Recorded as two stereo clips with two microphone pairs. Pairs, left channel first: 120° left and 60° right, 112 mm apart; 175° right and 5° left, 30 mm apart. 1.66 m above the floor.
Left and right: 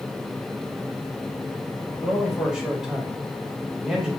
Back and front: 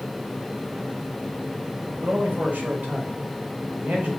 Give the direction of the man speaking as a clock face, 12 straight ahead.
11 o'clock.